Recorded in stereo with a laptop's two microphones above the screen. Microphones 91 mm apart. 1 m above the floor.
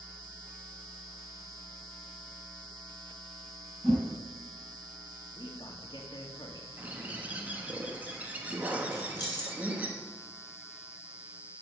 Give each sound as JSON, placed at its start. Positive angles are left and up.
{"t": 3.8, "sound": "a whoosh", "side_deg": 0, "distance_m": 6.0}
{"t": 5.3, "sound": "a man speaking", "side_deg": 60, "distance_m": 2.5}
{"t": 6.8, "sound": "a bird", "side_deg": -15, "distance_m": 1.2}
{"t": 8.9, "sound": "keys jangling", "side_deg": 50, "distance_m": 1.9}